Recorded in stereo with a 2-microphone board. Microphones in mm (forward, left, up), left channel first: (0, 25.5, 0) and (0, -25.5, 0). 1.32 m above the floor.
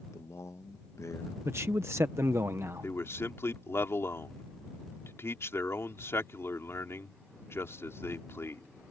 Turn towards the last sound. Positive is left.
turn(degrees=55)  # may be behind; listen again after turning